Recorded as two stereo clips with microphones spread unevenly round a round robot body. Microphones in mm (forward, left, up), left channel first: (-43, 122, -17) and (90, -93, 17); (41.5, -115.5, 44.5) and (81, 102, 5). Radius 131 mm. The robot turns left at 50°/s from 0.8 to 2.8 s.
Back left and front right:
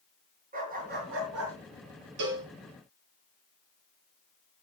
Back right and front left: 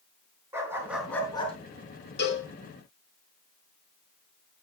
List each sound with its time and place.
0.5 s a dog barking: straight ahead, 4.5 m; by 1.6 s 40° right, 4.5 m
2.2 s a cowbell: 60° right, 2.5 m; by 2.5 s 75° right, 2.5 m